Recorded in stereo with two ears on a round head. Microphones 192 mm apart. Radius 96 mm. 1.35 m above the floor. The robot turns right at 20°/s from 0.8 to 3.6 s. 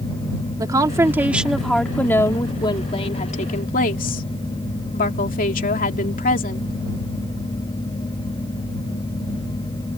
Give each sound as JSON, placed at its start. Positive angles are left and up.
{"t": 0.6, "sound": "a woman speaking", "azimuth_deg": -15}